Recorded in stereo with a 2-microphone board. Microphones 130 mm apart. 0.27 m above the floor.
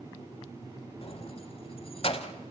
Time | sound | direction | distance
1.0 | keys jangling | 50° left (ahead or behind) | 0.9 m